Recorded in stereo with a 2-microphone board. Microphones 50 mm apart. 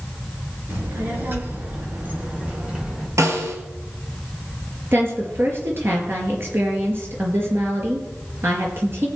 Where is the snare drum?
75° right (ahead or behind), 2.5 m.